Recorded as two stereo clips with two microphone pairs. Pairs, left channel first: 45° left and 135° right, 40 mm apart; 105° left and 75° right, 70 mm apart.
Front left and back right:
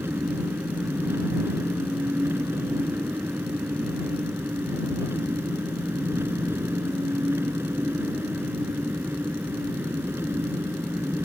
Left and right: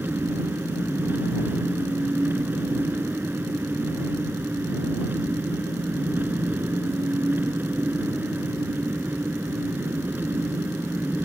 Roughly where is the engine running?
Behind right.